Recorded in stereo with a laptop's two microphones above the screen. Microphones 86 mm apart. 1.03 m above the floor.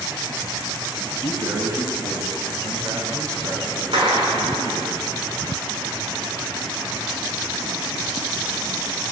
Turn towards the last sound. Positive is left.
turn(degrees=-85)